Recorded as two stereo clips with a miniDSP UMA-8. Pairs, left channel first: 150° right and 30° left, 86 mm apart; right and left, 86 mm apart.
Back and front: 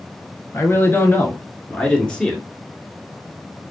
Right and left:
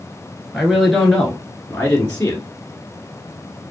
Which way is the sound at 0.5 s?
Straight behind.